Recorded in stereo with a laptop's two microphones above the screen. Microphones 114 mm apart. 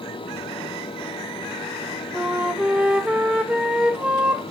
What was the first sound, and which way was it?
A fan, 50° left (ahead or behind).